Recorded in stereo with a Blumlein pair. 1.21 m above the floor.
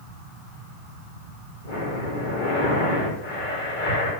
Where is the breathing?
50° left, 2 m.